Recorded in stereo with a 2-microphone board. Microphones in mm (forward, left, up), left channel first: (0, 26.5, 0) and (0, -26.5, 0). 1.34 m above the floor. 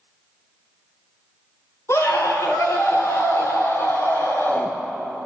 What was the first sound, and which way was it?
A scream, 80° left.